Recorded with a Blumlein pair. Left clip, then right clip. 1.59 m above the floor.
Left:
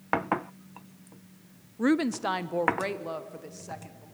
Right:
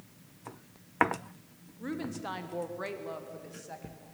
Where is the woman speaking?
40° left, 0.6 m; by 4.0 s 15° left, 2 m.